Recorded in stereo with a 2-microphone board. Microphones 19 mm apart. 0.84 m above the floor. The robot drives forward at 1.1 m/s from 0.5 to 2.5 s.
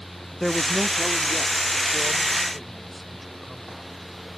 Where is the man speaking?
10° left (ahead or behind); by 3.8 s centre (ahead or behind).